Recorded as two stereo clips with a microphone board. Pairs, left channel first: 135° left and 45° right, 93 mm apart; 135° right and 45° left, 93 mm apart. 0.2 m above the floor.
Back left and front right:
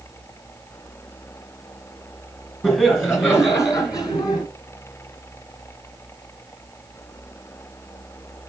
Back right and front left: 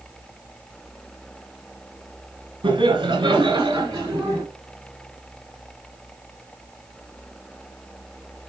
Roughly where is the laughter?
Ahead left.